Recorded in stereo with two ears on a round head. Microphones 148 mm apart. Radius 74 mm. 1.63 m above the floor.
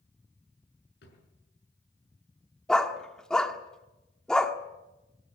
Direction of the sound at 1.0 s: 75° left (ahead or behind).